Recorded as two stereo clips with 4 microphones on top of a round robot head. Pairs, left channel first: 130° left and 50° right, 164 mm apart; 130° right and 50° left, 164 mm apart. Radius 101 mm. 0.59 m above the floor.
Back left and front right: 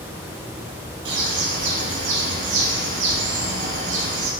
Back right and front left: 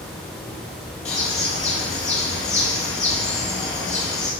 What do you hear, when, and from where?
1.1 s a bird: 75° right, 3 m